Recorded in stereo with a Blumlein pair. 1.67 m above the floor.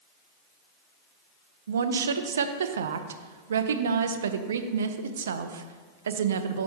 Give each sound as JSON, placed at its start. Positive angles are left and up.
{"t": 1.7, "sound": "a woman speaking", "azimuth_deg": -65, "distance_m": 0.6}